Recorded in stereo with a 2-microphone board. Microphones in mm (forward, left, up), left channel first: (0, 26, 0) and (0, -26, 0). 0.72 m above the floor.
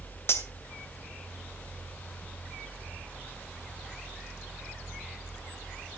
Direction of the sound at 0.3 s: 60° left (ahead or behind).